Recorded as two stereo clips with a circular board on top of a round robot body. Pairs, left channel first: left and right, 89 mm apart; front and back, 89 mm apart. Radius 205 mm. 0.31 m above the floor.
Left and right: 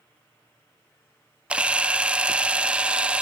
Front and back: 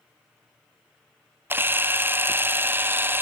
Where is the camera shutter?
150° right, 0.7 m.